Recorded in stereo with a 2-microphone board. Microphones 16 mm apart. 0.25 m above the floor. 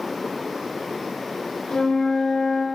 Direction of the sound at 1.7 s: 45° left (ahead or behind).